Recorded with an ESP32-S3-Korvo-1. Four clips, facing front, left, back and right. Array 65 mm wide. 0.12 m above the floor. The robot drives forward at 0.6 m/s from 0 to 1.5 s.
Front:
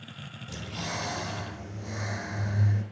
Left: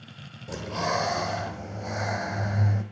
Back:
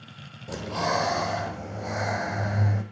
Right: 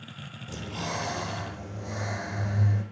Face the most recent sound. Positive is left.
turn(degrees=160)